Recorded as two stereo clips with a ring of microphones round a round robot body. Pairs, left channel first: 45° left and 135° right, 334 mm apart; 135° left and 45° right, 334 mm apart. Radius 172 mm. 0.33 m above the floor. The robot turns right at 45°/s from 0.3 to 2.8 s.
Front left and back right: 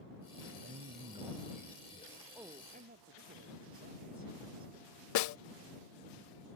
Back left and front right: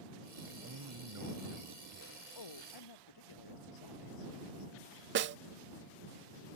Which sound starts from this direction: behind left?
A man speaking, at 2.4 s.